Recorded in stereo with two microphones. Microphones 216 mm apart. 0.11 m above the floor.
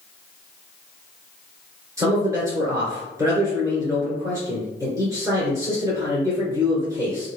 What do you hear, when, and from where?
2.0 s a man speaking: 15° right (ahead or behind), 2.0 m